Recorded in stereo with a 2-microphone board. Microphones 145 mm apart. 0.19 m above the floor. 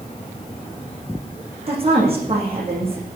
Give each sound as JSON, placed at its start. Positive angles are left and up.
{"t": 1.7, "sound": "a woman speaking", "side_deg": -40, "distance_m": 8.5}